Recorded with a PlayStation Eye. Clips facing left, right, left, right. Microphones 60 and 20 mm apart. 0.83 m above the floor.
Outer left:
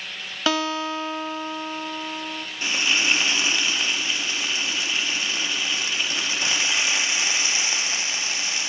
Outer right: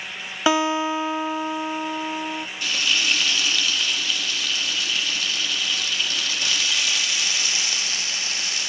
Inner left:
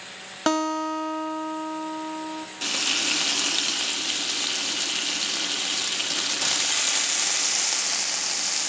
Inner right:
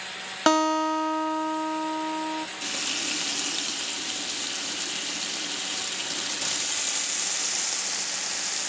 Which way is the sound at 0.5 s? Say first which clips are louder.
Outer right 4 dB, inner right 2 dB; 15° right (ahead or behind).